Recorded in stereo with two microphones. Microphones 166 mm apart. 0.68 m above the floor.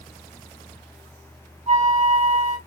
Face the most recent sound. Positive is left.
turn(degrees=-45)  # may be behind; listen again after turning